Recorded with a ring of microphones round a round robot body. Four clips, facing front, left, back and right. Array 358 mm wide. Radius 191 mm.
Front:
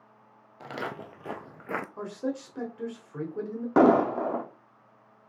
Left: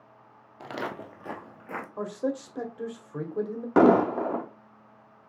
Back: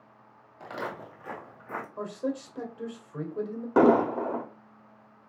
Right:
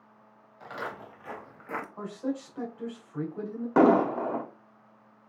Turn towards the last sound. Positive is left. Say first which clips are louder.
# left 2 dB, front 1 dB
turn(degrees=65)